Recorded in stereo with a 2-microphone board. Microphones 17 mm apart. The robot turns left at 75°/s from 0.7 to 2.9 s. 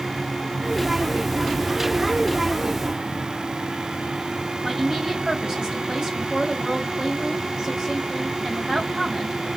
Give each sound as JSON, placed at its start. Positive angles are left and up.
{"t": 4.6, "sound": "a woman speaking", "side_deg": -50, "distance_m": 2.0}